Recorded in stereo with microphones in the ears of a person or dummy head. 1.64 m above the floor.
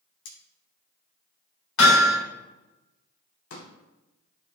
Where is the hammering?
80° left, 5 m.